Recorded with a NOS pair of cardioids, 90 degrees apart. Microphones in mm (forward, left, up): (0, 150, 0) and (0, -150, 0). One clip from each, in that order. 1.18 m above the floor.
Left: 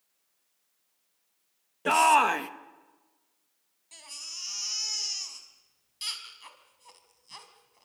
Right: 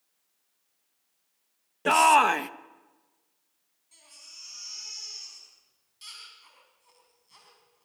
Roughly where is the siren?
No siren in this recording.